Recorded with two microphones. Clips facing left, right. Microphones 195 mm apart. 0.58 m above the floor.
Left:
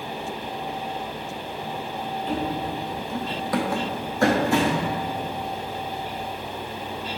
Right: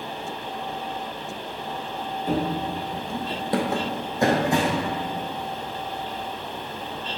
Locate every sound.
2.3 s running footsteps: 50° right (ahead or behind), 0.8 m; by 4.9 s 15° right (ahead or behind), 2 m